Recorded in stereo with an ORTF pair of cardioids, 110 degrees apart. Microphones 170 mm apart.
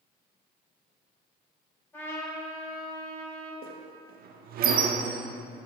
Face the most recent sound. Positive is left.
turn(degrees=-60)